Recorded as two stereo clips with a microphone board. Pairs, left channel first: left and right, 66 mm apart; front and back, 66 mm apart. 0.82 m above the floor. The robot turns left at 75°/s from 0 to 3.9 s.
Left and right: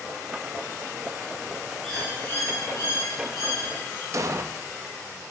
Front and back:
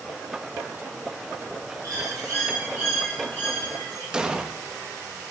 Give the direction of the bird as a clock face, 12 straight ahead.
6 o'clock.